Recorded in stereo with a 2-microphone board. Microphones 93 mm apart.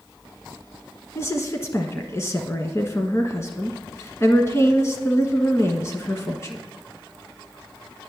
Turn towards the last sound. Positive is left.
turn(degrees=30)  # may be behind; listen again after turning